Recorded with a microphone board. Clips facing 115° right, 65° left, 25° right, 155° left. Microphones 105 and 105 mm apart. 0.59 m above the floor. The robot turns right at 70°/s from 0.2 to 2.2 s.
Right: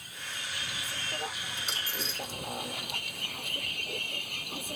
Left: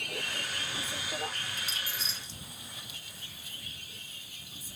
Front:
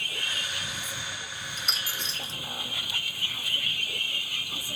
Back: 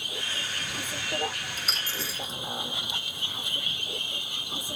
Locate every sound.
0.0 s a vehicle: 85° left; by 4.8 s 135° right
1.6 s a dropped coin: 125° right; by 2.4 s 80° right